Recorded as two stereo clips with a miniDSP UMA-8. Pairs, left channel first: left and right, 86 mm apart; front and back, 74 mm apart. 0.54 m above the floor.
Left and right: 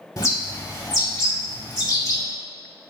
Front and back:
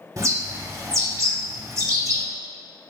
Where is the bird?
140° left, 0.7 m.